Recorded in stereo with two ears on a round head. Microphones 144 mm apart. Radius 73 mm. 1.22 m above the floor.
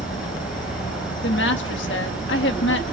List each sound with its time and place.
0.0 s an insect: 55° left (ahead or behind), 2.5 m
1.2 s a woman speaking: 75° left (ahead or behind), 1.8 m